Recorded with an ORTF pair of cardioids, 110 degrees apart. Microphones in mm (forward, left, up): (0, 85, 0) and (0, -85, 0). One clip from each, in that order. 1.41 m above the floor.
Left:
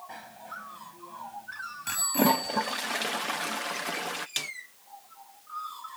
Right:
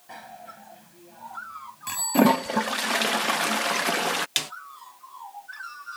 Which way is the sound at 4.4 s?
40° right.